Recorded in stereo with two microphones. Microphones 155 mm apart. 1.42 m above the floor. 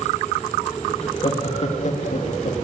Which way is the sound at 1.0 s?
30° left (ahead or behind).